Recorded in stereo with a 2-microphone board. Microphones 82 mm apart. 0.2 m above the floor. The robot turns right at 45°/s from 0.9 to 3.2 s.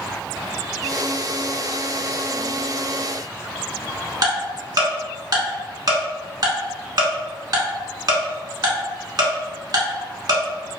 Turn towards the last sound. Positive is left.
turn(degrees=-55)  # may be behind; listen again after turning